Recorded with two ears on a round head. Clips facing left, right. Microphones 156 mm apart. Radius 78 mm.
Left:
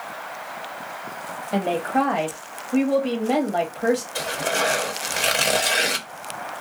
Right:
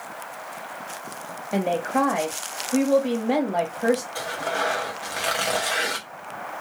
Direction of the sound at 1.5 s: 5° right (ahead or behind).